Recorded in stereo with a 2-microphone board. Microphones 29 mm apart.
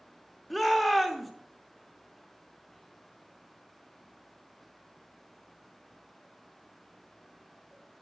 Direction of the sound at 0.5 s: 5° left (ahead or behind).